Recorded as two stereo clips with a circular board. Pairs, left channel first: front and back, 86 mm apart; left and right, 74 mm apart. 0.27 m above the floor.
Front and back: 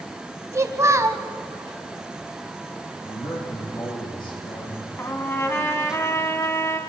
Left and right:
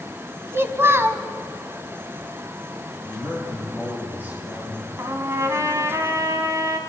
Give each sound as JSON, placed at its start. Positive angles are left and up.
{"t": 0.5, "sound": "a child speaking", "azimuth_deg": -140, "distance_m": 1.1}
{"t": 3.0, "sound": "a man speaking", "azimuth_deg": -25, "distance_m": 9.5}
{"t": 5.0, "sound": "a trumpet", "azimuth_deg": -60, "distance_m": 1.9}